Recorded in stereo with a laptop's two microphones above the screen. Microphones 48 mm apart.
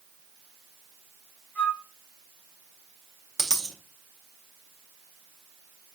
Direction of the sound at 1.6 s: 30° left (ahead or behind).